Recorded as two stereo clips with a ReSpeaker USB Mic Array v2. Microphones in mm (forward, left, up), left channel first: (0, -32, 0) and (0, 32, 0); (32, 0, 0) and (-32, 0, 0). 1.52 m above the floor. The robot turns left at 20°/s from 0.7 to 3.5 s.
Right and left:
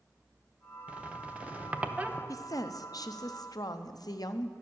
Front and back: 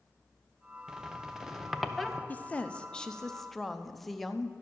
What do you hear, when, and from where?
0.9 s a squeak: 115° left, 0.5 m; by 2.2 s 85° left, 0.5 m
2.3 s a woman speaking: 65° right, 0.5 m; by 4.5 s 90° right, 0.5 m